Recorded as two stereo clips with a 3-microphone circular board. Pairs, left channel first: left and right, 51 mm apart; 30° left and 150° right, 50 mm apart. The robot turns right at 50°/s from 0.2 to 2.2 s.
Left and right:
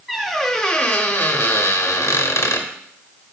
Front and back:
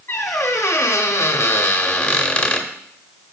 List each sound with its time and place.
0.1 s a squeak: straight ahead, 0.8 m; by 2.7 s 100° left, 0.8 m